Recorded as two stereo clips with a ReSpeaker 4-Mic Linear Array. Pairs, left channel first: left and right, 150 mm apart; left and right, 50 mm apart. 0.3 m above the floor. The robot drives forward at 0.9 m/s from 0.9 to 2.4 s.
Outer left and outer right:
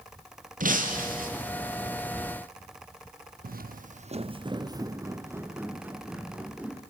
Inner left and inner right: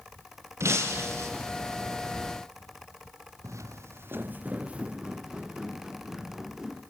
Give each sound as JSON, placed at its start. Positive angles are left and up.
{"t": 0.6, "sound": "breaking glass", "side_deg": -60, "distance_m": 3.5}
{"t": 3.4, "sound": "footsteps", "side_deg": -65, "distance_m": 0.7}